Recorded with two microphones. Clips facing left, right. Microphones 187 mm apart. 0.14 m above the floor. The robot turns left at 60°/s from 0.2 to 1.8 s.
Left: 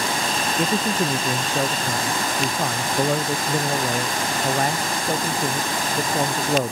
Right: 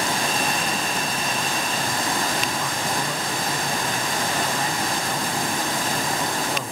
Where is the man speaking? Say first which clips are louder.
Left 5 dB; 125° left; by 6.7 s 50° left.